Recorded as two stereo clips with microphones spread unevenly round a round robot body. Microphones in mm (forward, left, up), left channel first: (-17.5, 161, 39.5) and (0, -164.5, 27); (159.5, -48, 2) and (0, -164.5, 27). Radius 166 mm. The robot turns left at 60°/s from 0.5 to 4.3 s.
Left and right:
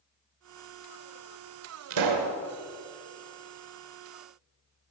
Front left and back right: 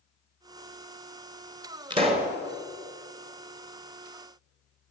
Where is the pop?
80° right, 2 m; by 2.3 s 105° right, 2 m.